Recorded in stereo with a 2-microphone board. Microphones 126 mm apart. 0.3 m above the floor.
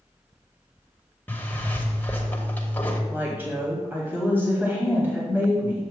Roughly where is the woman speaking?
Centre.